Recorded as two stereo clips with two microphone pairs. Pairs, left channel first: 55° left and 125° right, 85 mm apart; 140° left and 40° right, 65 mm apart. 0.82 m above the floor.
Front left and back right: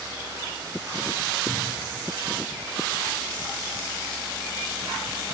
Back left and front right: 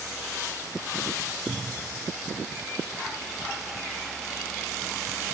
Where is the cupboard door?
25° left, 1.5 m.